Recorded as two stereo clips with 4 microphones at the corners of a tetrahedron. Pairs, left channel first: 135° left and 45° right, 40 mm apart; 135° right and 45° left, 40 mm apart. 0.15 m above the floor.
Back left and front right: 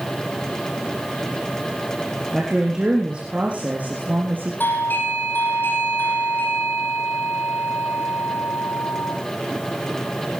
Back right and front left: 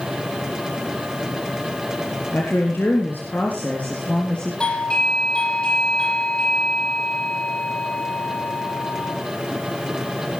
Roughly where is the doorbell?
Behind.